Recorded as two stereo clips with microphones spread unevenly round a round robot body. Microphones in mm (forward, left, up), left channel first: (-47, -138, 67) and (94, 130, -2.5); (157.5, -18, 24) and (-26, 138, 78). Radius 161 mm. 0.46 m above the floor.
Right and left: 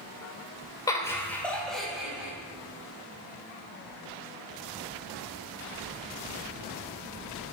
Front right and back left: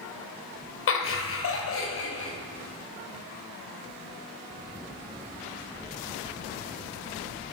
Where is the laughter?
35° right, 2.0 m; by 2.3 s 20° right, 3 m.